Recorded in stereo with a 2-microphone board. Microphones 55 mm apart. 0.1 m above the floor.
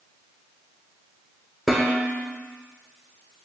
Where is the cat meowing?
I don't hear a cat meowing.